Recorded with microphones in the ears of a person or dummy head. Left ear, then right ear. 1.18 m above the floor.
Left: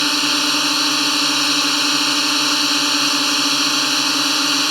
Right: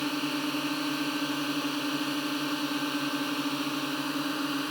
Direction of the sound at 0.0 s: 70° left (ahead or behind).